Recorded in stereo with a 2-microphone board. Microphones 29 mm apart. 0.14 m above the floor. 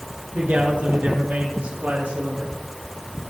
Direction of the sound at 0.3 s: 75° right (ahead or behind).